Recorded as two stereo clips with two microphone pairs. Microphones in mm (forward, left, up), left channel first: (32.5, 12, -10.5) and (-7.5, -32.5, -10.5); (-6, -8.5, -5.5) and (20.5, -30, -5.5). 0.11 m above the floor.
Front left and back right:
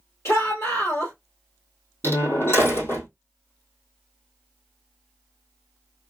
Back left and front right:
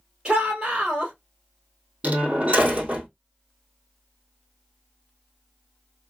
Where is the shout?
20° left, 2 m.